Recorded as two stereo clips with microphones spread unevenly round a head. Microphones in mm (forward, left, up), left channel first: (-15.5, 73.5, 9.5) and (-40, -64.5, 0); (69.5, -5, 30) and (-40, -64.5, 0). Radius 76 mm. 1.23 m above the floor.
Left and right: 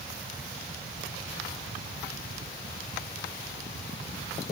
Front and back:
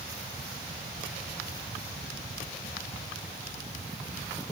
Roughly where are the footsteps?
I don't hear footsteps.